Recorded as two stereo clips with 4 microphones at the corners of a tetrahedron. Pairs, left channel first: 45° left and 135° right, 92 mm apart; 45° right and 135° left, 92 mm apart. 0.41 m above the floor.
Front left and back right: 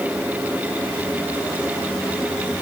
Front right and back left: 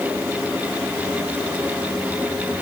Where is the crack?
No crack in this recording.